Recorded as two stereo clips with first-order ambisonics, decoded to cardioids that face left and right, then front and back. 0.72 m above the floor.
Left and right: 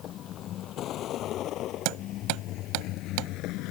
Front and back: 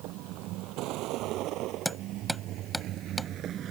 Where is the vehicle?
145° left; by 3.7 s 125° left.